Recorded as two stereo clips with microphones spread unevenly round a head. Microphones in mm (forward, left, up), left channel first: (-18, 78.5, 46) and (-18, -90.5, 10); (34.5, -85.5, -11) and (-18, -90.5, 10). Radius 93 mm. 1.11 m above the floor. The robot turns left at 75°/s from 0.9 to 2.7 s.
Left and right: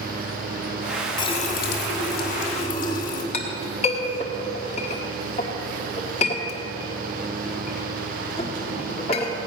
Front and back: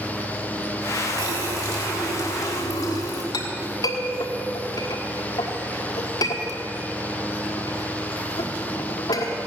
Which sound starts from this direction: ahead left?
A clink, at 3.3 s.